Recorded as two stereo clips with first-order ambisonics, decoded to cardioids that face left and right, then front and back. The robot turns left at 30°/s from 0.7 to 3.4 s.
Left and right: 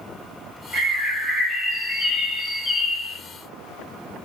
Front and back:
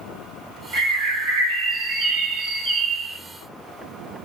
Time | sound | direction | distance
0.7 | a bird | 165° right | 1.7 m